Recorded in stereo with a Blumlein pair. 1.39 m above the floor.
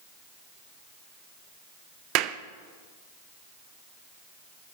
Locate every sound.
2.1 s a clap: 40° right, 0.8 m